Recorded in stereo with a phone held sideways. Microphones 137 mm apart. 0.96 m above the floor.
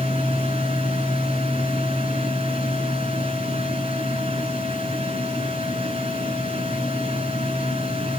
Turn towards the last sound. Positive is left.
turn(degrees=-45)  # may be behind; listen again after turning